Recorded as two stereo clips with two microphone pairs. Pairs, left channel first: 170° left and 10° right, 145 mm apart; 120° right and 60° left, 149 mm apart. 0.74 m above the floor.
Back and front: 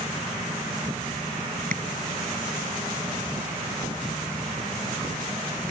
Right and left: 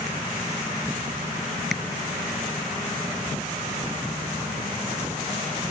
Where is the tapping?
30° right.